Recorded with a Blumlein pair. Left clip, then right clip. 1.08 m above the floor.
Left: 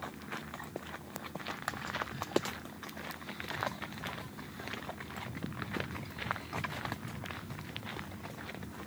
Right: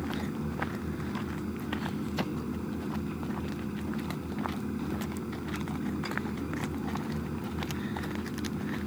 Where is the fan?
55° right.